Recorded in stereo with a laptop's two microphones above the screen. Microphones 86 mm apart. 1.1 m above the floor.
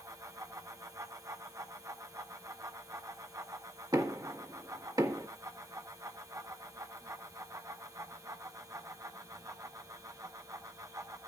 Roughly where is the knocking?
Right.